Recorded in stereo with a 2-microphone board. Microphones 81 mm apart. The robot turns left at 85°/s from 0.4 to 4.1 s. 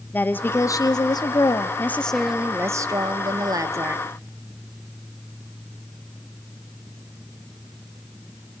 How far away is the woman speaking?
About 1.1 m.